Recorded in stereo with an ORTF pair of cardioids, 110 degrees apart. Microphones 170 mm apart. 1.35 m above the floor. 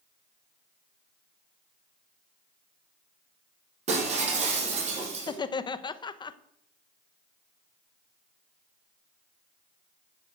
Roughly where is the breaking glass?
Ahead right.